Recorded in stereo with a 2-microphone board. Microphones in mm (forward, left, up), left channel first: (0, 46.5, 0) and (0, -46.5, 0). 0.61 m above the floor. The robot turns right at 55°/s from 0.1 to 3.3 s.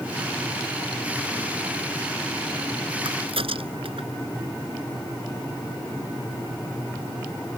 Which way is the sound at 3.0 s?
70° right (ahead or behind).